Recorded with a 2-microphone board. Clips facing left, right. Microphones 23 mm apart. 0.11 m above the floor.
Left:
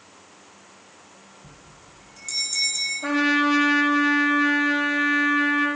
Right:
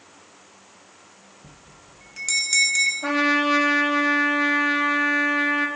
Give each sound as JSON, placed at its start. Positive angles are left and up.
{"t": 1.4, "sound": "a bell", "side_deg": -50, "distance_m": 2.0}
{"t": 3.0, "sound": "a trumpet", "side_deg": -10, "distance_m": 4.0}